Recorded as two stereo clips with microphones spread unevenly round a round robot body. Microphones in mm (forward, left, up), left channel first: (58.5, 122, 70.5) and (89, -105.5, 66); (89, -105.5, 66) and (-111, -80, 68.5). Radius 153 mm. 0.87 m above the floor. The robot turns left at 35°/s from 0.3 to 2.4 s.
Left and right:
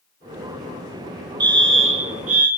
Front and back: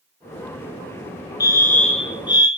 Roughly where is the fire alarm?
Ahead right.